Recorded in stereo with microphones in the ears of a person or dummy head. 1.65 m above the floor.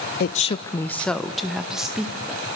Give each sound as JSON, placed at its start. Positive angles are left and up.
{"t": 0.2, "sound": "a woman speaking", "side_deg": 45, "distance_m": 0.5}